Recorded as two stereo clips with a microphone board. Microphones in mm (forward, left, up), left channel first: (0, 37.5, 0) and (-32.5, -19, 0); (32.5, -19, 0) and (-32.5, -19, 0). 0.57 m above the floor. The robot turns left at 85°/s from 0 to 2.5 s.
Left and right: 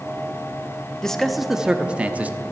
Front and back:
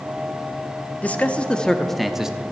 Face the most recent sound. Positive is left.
turn(degrees=-130)